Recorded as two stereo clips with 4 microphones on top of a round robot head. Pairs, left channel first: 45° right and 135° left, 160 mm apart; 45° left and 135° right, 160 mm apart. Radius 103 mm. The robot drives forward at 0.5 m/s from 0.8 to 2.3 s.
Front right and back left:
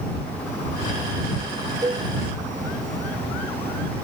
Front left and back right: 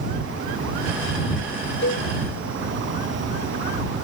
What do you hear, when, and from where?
1.8 s a cowbell: 65° left